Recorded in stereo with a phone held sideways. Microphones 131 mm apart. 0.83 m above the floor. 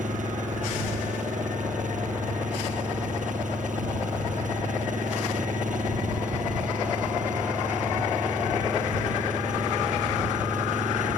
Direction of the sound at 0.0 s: 75° right (ahead or behind).